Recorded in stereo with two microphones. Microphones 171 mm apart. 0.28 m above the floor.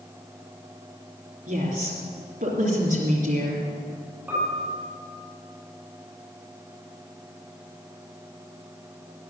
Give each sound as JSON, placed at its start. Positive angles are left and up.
{"t": 1.5, "sound": "a woman speaking", "side_deg": -50, "distance_m": 3.5}
{"t": 4.3, "sound": "a piano", "side_deg": -5, "distance_m": 6.0}